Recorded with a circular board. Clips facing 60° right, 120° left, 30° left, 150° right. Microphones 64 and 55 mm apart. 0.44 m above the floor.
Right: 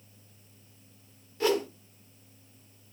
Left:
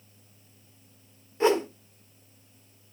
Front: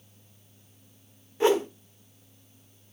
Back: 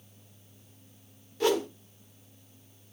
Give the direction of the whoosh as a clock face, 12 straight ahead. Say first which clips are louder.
Left 4 dB, front 4 dB; 10 o'clock.